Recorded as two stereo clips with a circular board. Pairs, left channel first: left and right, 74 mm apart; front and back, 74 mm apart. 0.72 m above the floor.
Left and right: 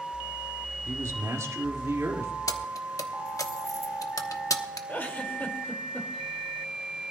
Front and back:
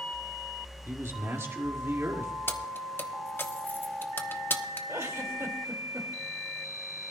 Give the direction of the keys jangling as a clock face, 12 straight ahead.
10 o'clock.